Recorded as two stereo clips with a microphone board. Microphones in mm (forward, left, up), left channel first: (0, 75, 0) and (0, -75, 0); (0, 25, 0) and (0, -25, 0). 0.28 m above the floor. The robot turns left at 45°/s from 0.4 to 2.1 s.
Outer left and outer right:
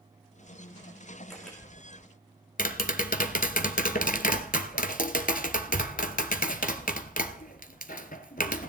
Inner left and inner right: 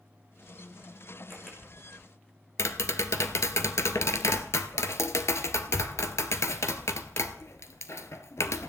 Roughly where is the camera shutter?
Centre.